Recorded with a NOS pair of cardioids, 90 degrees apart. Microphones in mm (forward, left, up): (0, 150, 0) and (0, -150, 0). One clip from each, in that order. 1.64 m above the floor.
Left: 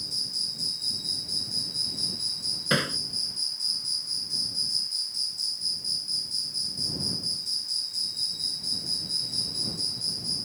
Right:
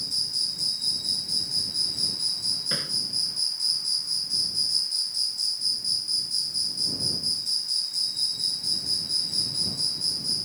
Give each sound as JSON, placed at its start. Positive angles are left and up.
{"t": 0.0, "sound": "an insect", "azimuth_deg": -15}
{"t": 2.7, "sound": "hammering", "azimuth_deg": 70}